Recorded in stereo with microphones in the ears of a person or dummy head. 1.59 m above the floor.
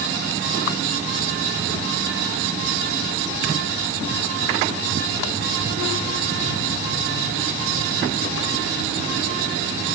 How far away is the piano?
I don't hear a piano.